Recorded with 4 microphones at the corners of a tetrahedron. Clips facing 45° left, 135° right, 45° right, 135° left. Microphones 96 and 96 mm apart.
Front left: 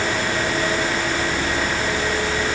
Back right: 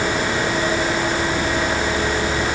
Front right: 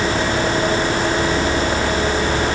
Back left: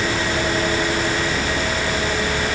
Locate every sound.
Only background noise.